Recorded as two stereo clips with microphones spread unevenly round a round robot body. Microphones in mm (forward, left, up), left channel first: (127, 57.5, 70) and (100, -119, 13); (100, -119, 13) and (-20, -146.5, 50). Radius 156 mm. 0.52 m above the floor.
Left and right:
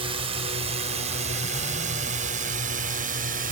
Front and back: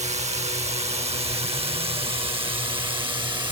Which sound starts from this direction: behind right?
A drone, at 0.0 s.